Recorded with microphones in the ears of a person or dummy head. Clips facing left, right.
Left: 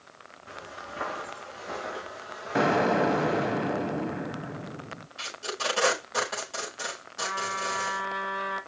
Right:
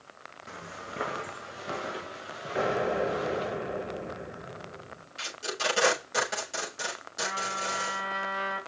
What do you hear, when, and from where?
0.5 s footsteps: 45° right (ahead or behind), 2.5 m; by 3.5 s 30° right (ahead or behind), 5.5 m
2.5 s an explosion: 70° left (ahead or behind), 0.9 m
5.2 s tape being pulled: 20° right (ahead or behind), 6.5 m
7.2 s a trumpet: 30° right (ahead or behind), 3.5 m